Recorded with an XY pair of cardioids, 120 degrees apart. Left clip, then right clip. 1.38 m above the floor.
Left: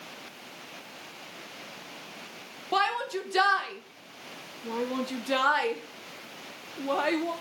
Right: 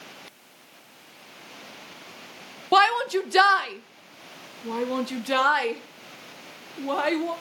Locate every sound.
2.7 s a shout: 50° right, 1.3 m; by 7.3 s 15° right, 3.5 m